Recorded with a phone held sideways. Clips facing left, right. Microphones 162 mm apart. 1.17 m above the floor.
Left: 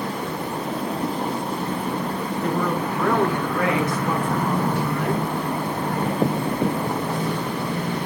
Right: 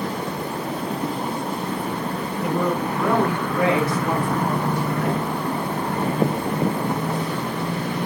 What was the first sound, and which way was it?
A woman speaking, 10° right (ahead or behind).